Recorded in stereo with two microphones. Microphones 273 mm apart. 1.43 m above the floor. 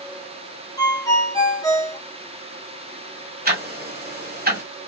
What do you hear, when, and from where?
0.8 s a ringtone: 15° left (ahead or behind), 0.6 m
3.5 s ticking: 30° right (ahead or behind), 1.3 m